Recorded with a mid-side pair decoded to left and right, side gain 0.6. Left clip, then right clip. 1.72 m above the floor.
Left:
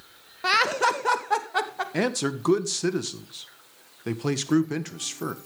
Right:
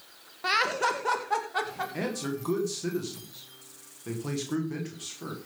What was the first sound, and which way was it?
Laughter, 30° left.